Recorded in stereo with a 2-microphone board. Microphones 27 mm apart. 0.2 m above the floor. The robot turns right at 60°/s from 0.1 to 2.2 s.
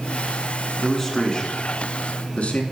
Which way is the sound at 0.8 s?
Centre (ahead or behind).